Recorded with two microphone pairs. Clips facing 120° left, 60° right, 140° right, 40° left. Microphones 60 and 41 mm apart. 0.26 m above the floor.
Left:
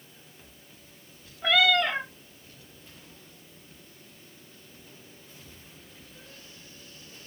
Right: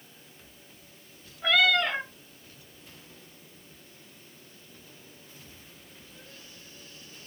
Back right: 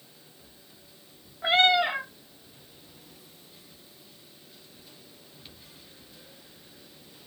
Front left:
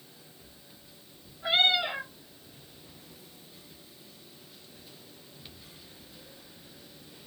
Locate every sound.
1.4 s a cat meowing: 145° right, 0.7 m